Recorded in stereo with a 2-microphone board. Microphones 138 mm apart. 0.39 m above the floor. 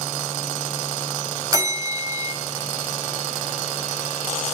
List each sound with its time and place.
1.5 s a bell: 25° right (ahead or behind), 1.2 m